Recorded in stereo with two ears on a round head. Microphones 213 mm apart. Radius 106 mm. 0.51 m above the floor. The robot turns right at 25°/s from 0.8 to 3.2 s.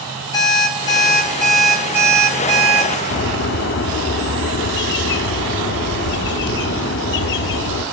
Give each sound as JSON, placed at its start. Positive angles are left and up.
{"t": 0.3, "sound": "an alarm clock", "azimuth_deg": 160, "distance_m": 5.5}
{"t": 3.1, "sound": "a bird", "side_deg": 50, "distance_m": 0.5}